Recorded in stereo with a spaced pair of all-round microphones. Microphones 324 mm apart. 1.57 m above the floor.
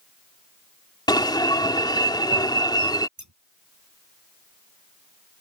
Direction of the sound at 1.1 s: 10° left (ahead or behind).